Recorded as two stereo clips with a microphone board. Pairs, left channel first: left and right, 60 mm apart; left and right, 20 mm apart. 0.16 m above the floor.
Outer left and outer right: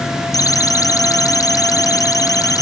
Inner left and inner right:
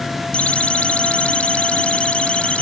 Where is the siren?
80° left.